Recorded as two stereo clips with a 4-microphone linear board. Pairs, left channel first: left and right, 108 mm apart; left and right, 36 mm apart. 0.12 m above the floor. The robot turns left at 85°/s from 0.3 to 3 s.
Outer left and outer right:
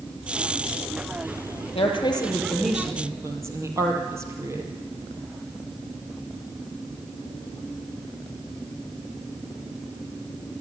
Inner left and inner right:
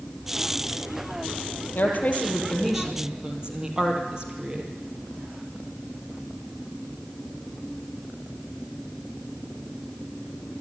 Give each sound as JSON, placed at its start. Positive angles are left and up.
{"t": 1.8, "sound": "a woman speaking", "azimuth_deg": 75, "distance_m": 3.5}